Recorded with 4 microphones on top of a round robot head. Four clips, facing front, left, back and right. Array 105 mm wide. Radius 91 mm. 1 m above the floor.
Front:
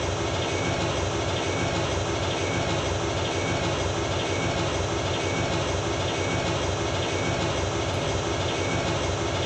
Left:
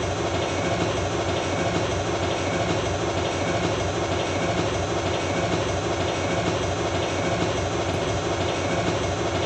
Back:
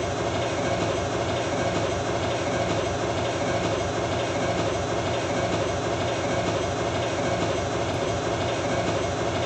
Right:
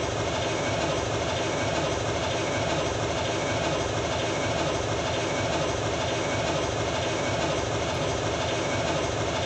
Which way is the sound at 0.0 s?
115° left.